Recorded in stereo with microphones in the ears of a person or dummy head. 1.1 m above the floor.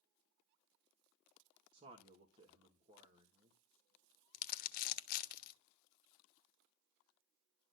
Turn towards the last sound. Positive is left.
turn(degrees=55)  # may be behind; listen again after turning